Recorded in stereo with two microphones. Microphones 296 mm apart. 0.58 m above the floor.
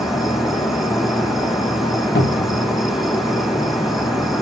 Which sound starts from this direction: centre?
An insect, at 0.0 s.